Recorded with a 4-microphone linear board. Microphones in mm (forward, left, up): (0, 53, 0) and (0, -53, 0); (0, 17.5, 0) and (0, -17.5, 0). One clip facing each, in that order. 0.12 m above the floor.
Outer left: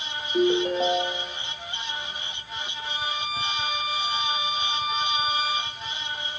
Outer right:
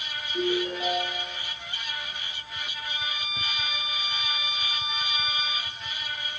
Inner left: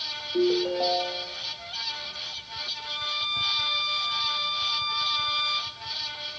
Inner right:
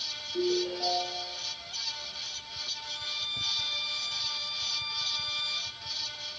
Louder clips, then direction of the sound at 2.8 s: Outer left 6 dB, inner left 7 dB; 35° left (ahead or behind).